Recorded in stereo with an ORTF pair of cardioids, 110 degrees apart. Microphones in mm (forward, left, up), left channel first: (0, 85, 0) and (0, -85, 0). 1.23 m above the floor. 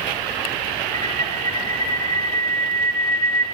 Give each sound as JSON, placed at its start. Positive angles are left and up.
{"t": 0.9, "sound": "a bird", "azimuth_deg": 20, "distance_m": 1.8}